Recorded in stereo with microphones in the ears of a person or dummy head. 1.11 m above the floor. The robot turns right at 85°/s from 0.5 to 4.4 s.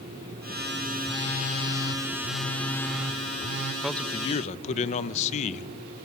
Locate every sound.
1.0 s a phone buzzing: 15° left, 1.7 m; by 3.7 s 115° right, 1.7 m
3.8 s a man speaking: 5° right, 0.8 m; by 5.7 s 40° left, 0.8 m